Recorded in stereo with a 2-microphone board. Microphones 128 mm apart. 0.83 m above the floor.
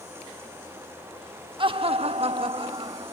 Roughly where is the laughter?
Right.